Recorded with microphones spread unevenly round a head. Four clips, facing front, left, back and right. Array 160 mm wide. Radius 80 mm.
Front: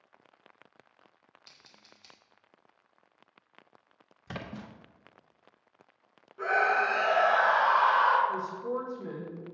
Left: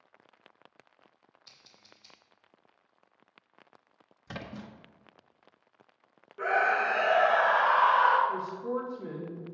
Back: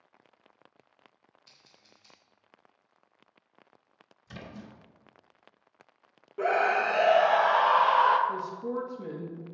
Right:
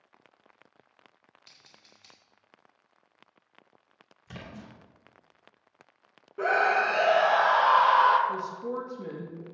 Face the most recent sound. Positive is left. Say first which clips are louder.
# even, even
turn(degrees=-130)